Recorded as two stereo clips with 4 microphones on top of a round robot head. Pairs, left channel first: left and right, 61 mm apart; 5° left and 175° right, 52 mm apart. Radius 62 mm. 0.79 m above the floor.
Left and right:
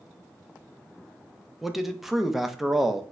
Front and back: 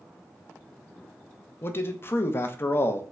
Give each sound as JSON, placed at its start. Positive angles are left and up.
{"t": 1.6, "sound": "a man speaking", "azimuth_deg": -5, "distance_m": 0.6}